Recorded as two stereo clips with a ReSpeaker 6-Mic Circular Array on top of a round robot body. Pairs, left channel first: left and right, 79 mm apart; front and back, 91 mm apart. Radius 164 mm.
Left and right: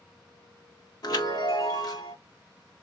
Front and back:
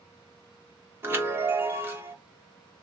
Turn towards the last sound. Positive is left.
turn(degrees=120)